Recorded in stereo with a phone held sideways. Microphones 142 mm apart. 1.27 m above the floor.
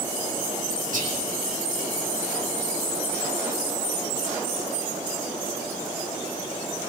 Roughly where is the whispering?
Right.